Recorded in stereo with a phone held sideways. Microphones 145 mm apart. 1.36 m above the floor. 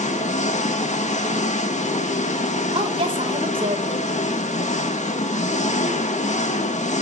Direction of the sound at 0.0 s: 55° left (ahead or behind).